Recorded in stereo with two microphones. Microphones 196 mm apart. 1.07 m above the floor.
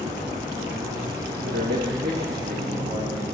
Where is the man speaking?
65° right (ahead or behind), 1.5 m; by 3.2 s 40° right (ahead or behind), 3 m.